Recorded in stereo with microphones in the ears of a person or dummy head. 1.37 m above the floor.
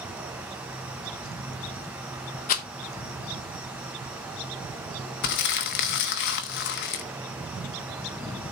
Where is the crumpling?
50° left (ahead or behind), 1.0 m.